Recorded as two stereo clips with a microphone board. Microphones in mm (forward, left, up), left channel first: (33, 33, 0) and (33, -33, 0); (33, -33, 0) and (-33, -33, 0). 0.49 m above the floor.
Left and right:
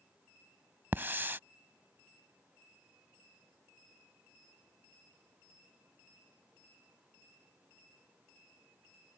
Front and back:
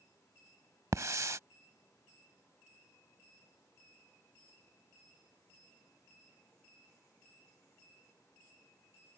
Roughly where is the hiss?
Behind right.